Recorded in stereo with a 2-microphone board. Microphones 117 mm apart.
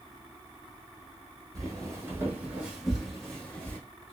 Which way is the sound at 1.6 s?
30° right (ahead or behind).